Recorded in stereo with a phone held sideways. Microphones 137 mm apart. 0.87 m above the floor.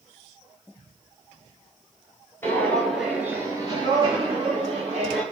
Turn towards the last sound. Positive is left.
turn(degrees=-45)  # may be behind; listen again after turning